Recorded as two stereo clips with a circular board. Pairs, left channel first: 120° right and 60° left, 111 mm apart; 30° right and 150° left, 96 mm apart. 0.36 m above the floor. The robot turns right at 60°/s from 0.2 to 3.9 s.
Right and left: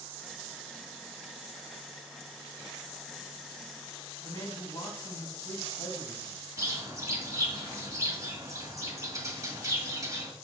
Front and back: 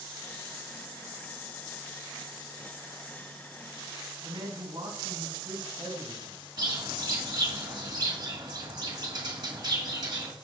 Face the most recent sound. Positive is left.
turn(degrees=115)